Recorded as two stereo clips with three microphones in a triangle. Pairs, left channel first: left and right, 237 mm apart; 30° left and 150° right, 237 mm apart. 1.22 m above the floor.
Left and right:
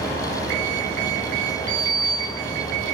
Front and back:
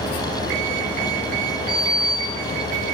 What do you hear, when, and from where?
1.7 s a sliding door: 5° left, 3 m